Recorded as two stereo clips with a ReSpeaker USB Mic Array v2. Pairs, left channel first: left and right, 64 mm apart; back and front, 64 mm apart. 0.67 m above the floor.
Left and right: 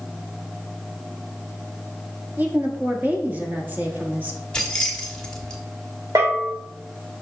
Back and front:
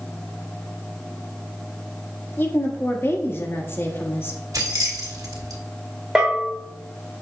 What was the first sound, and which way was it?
A woman speaking, 140° right.